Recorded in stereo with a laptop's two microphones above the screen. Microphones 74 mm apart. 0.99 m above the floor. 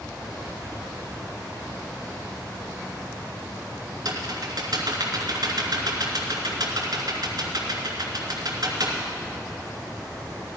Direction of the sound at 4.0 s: 60° right (ahead or behind).